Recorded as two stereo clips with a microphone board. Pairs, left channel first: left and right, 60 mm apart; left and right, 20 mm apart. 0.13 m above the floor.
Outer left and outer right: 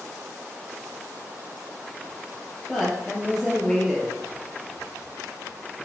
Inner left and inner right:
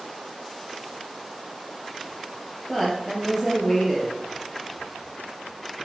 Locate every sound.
2.7 s a woman speaking: 5° left (ahead or behind), 3 m